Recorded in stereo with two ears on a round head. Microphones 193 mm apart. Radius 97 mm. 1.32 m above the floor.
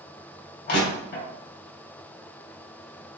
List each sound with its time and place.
0.7 s crushing: 45° left (ahead or behind), 3.5 m